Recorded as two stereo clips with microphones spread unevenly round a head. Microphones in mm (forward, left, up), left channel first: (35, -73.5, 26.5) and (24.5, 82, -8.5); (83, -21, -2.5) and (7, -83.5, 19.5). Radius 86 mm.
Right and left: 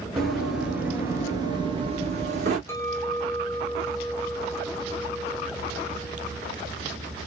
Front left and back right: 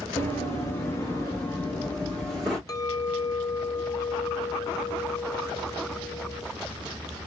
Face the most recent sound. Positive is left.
turn(degrees=-15)